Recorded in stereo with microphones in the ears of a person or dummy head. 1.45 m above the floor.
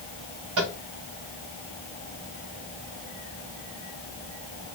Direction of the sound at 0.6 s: 65° right (ahead or behind).